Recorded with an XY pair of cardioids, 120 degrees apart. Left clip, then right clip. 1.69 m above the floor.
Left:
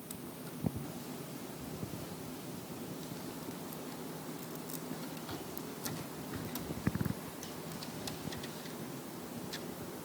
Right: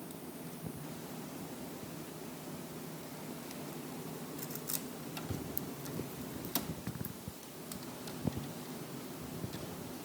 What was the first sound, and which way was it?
Only background noise.